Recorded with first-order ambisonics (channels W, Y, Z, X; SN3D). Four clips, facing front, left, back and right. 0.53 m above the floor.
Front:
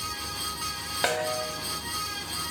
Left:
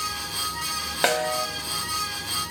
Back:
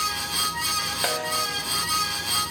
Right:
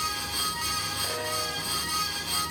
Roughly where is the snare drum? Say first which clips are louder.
Left 7 dB, front 2 dB; left.